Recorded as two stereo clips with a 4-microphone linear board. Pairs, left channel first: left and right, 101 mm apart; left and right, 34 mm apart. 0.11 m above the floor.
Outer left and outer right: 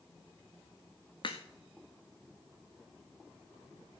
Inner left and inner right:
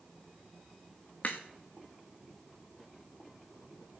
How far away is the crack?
About 1.9 m.